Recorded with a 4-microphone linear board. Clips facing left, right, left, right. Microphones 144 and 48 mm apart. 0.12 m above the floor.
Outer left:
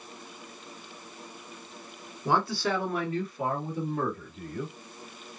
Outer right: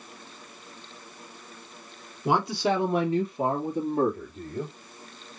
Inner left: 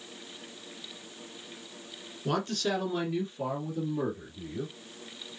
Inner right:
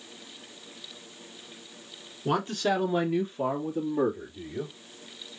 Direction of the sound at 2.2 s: 15° right (ahead or behind).